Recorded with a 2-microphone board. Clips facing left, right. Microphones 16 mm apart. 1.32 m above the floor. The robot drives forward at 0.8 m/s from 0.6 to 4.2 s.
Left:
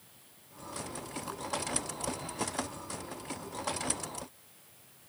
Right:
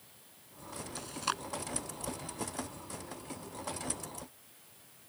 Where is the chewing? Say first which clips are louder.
Right 4 dB; 60° right (ahead or behind).